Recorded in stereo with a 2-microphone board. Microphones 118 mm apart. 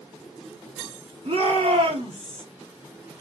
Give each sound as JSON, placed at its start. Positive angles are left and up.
{"t": 1.2, "sound": "a shout", "side_deg": -55, "distance_m": 2.5}